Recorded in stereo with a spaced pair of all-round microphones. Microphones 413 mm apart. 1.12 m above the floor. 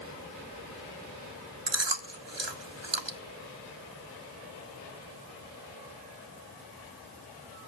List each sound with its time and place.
1.7 s chewing: 75° right (ahead or behind), 1.4 m